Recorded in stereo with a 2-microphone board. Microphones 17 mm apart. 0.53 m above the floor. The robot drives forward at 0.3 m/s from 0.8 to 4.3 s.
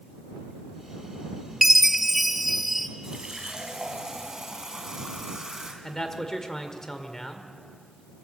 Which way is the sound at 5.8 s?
20° left (ahead or behind).